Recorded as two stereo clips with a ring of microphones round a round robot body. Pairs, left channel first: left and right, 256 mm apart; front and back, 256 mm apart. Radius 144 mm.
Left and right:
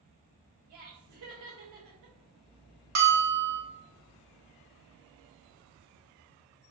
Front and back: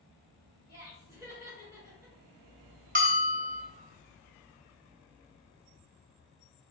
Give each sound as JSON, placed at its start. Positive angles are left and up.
{"t": 0.7, "sound": "laughter", "azimuth_deg": -100, "distance_m": 2.0}
{"t": 3.0, "sound": "a bell", "azimuth_deg": -125, "distance_m": 1.0}